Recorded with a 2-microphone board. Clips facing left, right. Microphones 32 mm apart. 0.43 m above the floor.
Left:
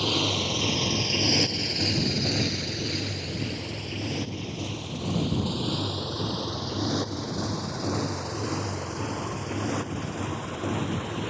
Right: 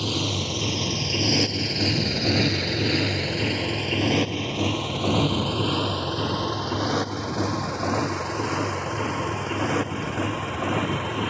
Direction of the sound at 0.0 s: 15° left (ahead or behind).